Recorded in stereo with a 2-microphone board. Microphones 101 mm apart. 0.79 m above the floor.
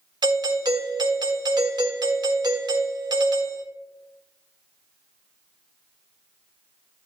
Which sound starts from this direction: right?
A doorbell, at 0.2 s.